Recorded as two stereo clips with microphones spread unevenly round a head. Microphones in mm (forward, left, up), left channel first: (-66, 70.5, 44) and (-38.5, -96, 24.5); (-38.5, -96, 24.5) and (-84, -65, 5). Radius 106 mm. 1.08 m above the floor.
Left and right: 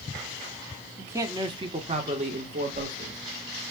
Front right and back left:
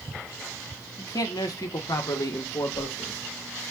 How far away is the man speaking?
About 0.8 m.